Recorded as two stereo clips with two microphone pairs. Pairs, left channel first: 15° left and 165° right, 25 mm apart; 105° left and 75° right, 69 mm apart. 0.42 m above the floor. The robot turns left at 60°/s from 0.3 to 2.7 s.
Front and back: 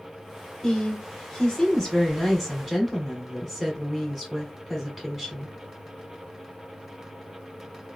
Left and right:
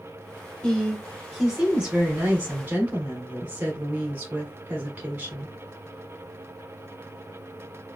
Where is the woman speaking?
50° left, 1.2 m; by 5.5 s 75° right, 1.2 m.